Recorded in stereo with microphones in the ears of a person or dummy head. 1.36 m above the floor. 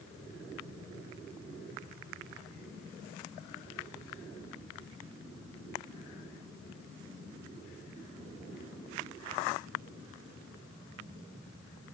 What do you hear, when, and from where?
Only background noise.